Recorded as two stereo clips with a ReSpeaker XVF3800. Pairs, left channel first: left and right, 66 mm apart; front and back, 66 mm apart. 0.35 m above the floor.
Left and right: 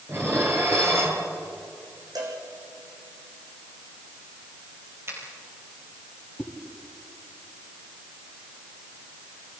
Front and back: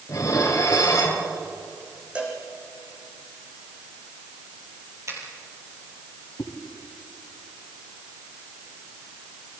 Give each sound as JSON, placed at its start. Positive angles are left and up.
{"t": 0.1, "sound": "dishes clattering", "azimuth_deg": -40, "distance_m": 5.0}
{"t": 2.1, "sound": "a cowbell", "azimuth_deg": -105, "distance_m": 5.0}
{"t": 5.1, "sound": "a finger snap", "azimuth_deg": -140, "distance_m": 7.0}
{"t": 6.4, "sound": "a whoosh", "azimuth_deg": 0, "distance_m": 2.0}